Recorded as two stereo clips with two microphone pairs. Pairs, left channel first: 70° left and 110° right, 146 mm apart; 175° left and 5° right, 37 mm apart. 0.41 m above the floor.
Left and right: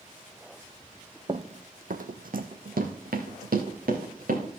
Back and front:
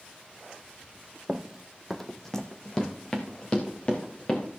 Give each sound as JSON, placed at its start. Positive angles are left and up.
{"t": 1.3, "sound": "running footsteps", "azimuth_deg": -60, "distance_m": 0.6}